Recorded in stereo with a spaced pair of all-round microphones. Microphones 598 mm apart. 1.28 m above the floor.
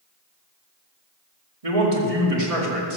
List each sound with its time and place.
1.6 s a man speaking: 70° right (ahead or behind), 2.5 m